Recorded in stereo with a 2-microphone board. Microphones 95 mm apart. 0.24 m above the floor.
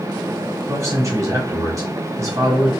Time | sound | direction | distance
0.7 | a man speaking | 35° right (ahead or behind) | 1.3 m